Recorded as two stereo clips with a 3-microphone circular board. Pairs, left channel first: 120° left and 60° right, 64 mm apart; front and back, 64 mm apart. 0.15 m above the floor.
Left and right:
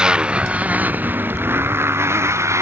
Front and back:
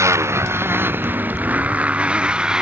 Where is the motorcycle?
135° right; by 2.6 s 100° right.